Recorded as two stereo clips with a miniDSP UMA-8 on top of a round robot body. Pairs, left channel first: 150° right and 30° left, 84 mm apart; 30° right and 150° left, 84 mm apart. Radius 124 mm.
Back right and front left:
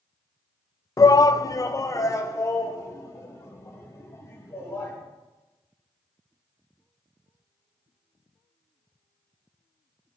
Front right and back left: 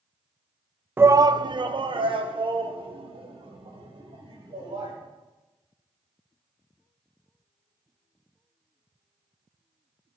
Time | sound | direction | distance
1.0 | a shout | 155° right | 0.5 m